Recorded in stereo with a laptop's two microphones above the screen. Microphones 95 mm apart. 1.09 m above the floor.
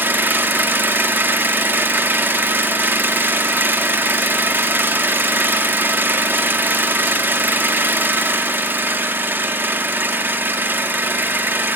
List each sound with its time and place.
0.0 s an engine running: 20° right (ahead or behind), 1.0 m